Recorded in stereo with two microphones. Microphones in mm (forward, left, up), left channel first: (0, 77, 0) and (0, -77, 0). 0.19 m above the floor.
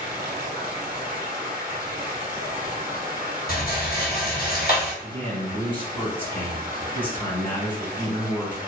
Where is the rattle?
80° left, 1.2 m.